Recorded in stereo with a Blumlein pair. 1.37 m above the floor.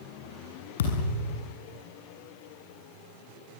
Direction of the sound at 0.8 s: 60° left.